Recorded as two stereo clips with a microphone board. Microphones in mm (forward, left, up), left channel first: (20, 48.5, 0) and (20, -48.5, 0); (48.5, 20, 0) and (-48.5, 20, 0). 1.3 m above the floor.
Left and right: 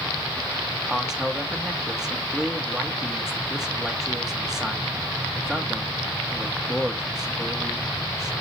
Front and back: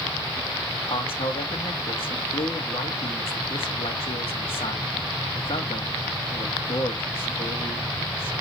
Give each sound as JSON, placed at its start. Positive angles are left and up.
{"t": 0.9, "sound": "a man speaking", "azimuth_deg": -5, "distance_m": 2.0}